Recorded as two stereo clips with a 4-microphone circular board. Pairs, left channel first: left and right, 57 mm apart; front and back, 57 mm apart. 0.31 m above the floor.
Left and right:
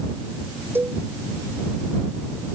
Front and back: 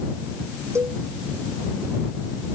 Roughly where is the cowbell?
Behind right.